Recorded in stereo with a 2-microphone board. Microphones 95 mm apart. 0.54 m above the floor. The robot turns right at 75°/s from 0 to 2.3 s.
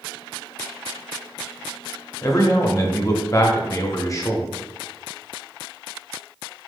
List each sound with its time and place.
2.2 s a man speaking: 35° left (ahead or behind), 0.7 m